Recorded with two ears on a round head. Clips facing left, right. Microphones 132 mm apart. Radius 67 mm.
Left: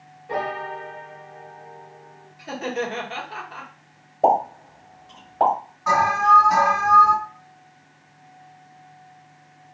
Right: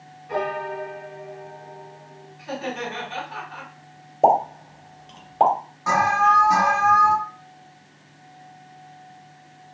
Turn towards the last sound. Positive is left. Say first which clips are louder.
# left 1 dB
turn(degrees=-25)  # may be behind; listen again after turning